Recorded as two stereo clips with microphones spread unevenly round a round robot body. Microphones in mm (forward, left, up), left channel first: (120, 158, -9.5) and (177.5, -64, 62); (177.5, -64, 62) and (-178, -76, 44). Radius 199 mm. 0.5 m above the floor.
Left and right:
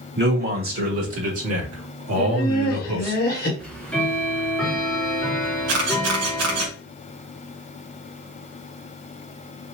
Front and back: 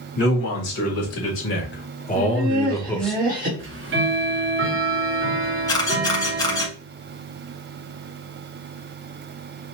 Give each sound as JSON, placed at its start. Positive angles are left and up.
{"t": 0.2, "sound": "a man speaking", "azimuth_deg": -35, "distance_m": 2.5}
{"t": 2.1, "sound": "laughter", "azimuth_deg": 120, "distance_m": 2.0}
{"t": 3.6, "sound": "ticking", "azimuth_deg": 160, "distance_m": 1.1}
{"t": 5.7, "sound": "a camera shutter", "azimuth_deg": -80, "distance_m": 1.8}